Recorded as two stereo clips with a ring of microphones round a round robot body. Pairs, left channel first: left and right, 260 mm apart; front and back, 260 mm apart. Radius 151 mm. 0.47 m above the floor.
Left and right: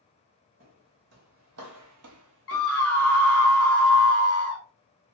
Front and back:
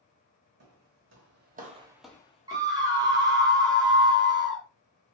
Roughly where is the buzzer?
I don't hear a buzzer.